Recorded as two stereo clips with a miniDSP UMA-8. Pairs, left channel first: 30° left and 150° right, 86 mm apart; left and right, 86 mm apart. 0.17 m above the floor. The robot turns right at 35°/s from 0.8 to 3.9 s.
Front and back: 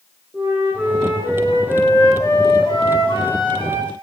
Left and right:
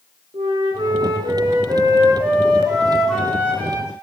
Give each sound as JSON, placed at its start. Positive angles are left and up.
{"t": 0.3, "sound": "a flute", "azimuth_deg": -75, "distance_m": 8.0}